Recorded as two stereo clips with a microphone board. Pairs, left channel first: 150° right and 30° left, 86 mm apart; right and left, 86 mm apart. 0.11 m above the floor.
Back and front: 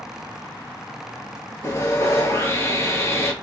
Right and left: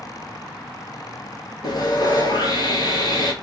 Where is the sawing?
105° right, 1.2 m.